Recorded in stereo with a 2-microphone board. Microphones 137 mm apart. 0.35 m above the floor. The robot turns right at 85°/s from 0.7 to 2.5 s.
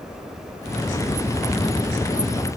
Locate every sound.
Only background noise.